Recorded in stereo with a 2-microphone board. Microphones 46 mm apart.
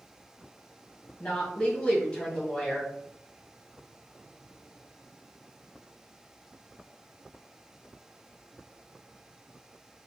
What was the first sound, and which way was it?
A woman speaking, 25° left (ahead or behind).